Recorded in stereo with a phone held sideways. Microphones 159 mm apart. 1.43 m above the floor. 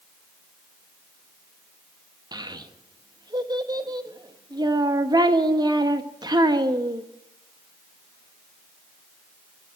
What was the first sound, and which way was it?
A child speaking, 25° right (ahead or behind).